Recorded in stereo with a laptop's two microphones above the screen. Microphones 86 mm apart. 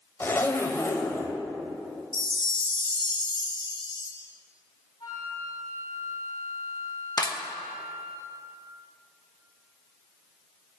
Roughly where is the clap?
Left.